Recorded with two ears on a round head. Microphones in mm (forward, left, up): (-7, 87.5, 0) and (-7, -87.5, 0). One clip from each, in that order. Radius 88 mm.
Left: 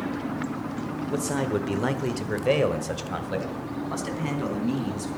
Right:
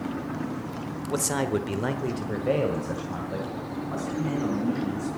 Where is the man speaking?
35° right (ahead or behind), 1.2 m; by 5.1 s 75° left (ahead or behind), 4.5 m.